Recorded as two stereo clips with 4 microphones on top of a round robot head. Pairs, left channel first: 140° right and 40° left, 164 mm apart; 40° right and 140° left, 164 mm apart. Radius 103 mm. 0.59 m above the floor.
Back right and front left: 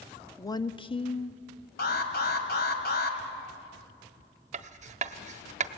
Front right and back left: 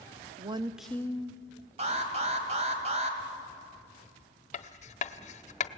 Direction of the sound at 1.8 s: 170° right.